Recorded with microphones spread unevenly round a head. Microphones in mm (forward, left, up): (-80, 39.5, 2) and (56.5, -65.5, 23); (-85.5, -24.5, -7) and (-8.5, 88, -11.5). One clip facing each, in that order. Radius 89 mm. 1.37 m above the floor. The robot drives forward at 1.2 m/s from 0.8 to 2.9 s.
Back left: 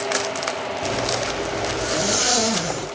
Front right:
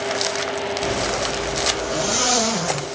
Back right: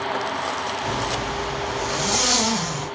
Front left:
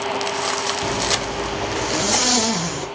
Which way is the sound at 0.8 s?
55° left.